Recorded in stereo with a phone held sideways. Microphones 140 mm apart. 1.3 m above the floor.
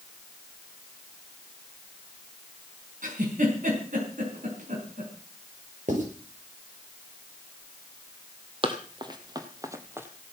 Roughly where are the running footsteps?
Right.